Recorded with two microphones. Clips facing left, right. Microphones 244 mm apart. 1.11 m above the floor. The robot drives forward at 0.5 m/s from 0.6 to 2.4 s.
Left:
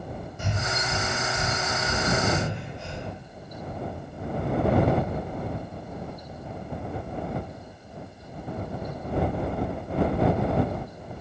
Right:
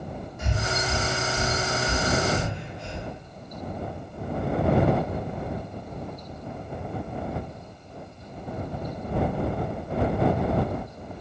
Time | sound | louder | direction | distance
0.4 | breathing | right 3 dB | 30° left (ahead or behind) | 0.8 m